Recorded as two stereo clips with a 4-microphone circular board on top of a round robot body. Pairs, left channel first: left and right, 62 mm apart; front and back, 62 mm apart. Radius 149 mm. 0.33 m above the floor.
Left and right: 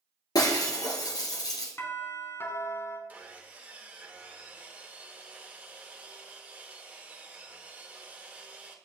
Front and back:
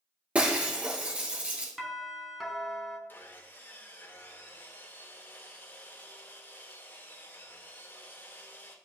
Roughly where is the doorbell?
Left.